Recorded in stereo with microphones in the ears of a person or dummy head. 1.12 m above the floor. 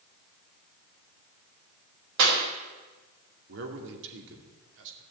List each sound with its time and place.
2.2 s a clap: 75° right (ahead or behind), 4 m
3.5 s a man speaking: 70° right (ahead or behind), 2.5 m